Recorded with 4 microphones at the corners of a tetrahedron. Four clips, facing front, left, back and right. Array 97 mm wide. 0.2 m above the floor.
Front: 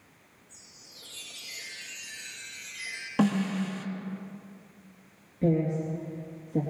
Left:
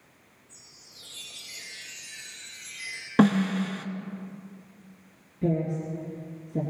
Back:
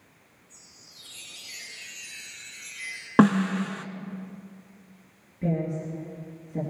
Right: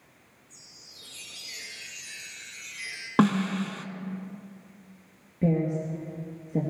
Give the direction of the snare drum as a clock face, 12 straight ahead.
6 o'clock.